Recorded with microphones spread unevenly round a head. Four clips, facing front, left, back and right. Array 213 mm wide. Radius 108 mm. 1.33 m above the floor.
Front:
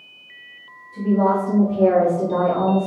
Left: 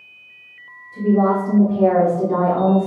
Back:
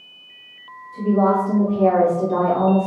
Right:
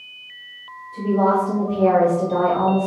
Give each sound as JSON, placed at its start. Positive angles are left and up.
{"t": 0.9, "sound": "a woman speaking", "azimuth_deg": 65, "distance_m": 3.5}